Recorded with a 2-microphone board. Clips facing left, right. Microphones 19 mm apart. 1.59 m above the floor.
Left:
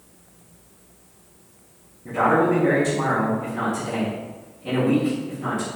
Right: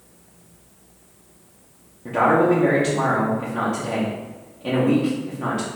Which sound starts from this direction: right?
A man speaking, at 2.0 s.